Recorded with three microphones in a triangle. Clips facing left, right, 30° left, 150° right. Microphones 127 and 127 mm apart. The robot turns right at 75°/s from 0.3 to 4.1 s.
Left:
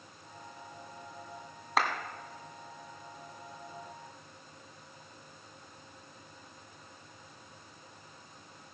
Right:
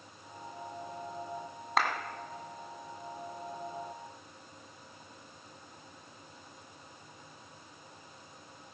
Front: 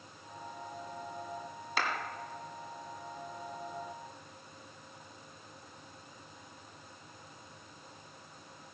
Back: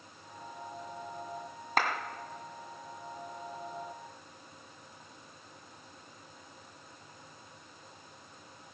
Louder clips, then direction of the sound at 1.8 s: Even, back 4 dB; straight behind.